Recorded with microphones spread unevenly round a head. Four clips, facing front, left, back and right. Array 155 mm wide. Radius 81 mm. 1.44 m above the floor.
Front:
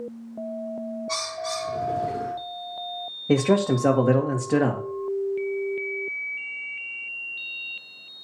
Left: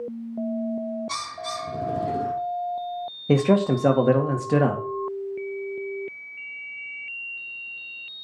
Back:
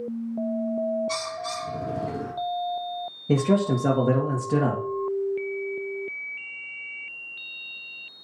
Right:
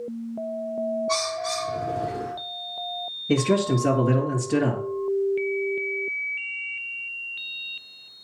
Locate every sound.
1.1 s a bird: 110° left, 2.5 m
3.3 s a man speaking: 55° left, 2.0 m